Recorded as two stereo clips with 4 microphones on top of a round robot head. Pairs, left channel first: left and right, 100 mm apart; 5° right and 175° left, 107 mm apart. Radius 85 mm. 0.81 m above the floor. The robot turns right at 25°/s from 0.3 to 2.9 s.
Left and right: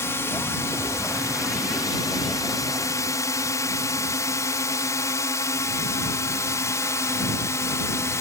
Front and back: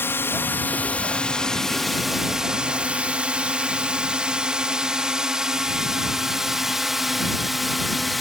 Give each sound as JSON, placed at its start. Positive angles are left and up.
{"t": 0.0, "sound": "a drone", "azimuth_deg": 45}